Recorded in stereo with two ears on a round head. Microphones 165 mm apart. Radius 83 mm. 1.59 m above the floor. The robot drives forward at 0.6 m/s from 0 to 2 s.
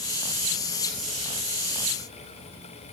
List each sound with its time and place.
Only background noise.